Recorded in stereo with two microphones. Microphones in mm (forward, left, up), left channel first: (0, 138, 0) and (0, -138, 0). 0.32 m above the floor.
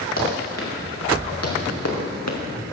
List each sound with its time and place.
0.2 s running footsteps: 45° left (ahead or behind), 5.5 m; by 2.4 s 70° left (ahead or behind), 3 m